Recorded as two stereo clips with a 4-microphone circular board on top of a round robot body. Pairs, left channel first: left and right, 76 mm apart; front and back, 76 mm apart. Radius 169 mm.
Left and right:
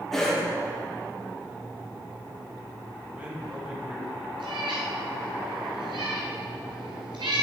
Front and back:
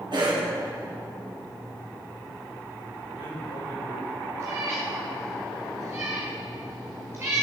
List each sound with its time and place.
0.1 s a cough: 175° left, 2.5 m
3.1 s a man speaking: 15° right, 3 m
4.4 s a cat meowing: 120° right, 1.0 m